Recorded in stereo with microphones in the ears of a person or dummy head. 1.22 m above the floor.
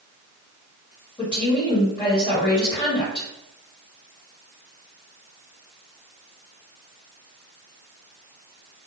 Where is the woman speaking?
20° left (ahead or behind), 1.9 m.